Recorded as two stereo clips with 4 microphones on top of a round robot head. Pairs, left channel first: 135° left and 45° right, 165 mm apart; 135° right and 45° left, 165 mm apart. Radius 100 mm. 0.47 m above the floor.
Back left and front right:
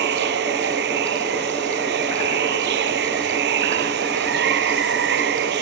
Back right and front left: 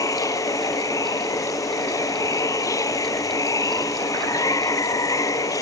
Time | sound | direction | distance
0.0 | running water | 65° right | ?